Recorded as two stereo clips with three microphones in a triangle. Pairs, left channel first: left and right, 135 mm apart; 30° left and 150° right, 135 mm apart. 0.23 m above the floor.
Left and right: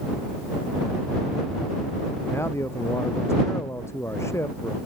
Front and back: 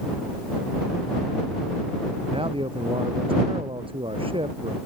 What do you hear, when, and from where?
2.3 s a man speaking: 160° left